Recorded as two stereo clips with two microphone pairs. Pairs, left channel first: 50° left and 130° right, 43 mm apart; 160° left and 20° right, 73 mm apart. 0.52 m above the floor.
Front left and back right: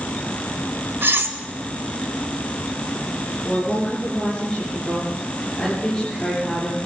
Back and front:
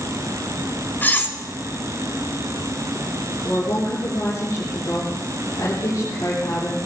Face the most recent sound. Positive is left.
turn(degrees=125)